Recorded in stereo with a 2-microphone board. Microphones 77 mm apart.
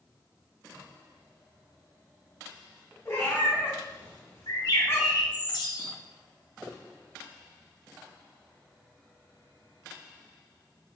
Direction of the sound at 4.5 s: 60° left (ahead or behind).